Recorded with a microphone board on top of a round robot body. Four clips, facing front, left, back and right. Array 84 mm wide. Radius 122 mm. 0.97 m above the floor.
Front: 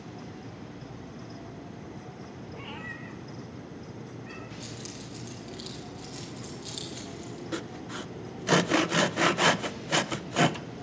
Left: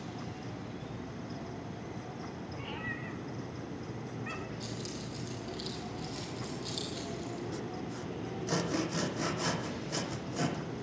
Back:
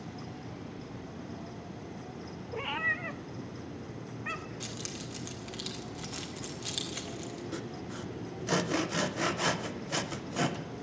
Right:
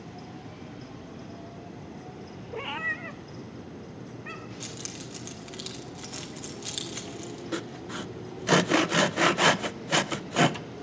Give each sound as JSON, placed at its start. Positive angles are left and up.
{"t": 2.5, "sound": "a cat meowing", "azimuth_deg": -115, "distance_m": 0.5}
{"t": 4.6, "sound": "keys jangling", "azimuth_deg": -120, "distance_m": 2.0}
{"t": 7.5, "sound": "sawing", "azimuth_deg": -60, "distance_m": 0.6}